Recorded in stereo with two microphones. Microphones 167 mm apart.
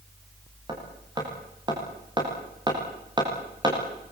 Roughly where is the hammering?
Right.